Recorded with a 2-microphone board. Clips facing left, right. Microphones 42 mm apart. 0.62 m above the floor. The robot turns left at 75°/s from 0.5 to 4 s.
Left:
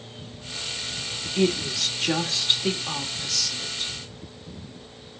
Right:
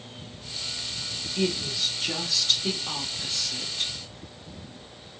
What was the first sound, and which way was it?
A woman speaking, 120° left.